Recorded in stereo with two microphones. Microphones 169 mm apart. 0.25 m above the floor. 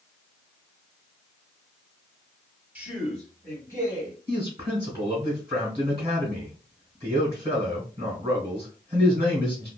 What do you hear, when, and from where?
2.8 s a man speaking: 10° right (ahead or behind), 1.1 m; by 4.2 s 30° left (ahead or behind), 1.4 m
4.3 s a man speaking: 25° right (ahead or behind), 1.6 m